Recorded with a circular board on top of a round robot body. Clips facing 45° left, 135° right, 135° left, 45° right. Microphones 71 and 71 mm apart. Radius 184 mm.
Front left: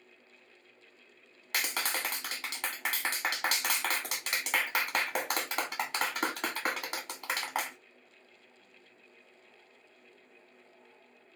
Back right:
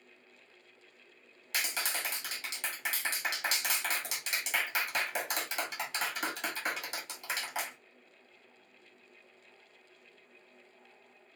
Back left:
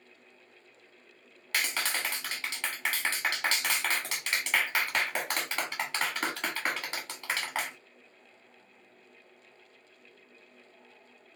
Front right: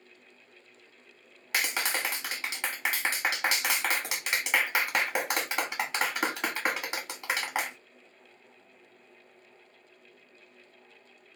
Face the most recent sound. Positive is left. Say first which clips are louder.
# front left 2 dB, front right 2 dB
turn(degrees=25)